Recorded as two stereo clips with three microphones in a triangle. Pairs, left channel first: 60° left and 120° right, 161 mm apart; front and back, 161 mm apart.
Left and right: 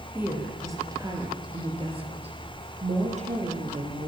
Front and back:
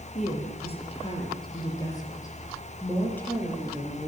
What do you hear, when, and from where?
0.1 s a woman speaking: 40° right, 6 m; by 4.1 s 85° right, 7.5 m